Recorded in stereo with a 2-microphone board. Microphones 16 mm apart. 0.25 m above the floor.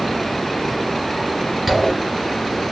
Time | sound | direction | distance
1.7 | a zipper | 20° right (ahead or behind) | 3 m